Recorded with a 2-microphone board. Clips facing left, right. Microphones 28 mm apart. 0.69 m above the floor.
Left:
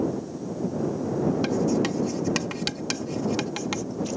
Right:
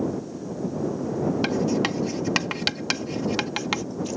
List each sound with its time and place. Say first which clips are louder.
1.4 s writing: even; 30° right (ahead or behind)